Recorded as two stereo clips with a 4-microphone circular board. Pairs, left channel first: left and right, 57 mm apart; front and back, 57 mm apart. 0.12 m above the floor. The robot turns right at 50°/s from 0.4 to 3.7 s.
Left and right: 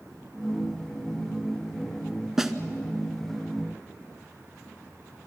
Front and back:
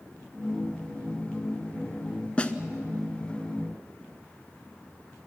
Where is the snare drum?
20° right, 0.9 m; by 2.5 s 15° right, 0.9 m.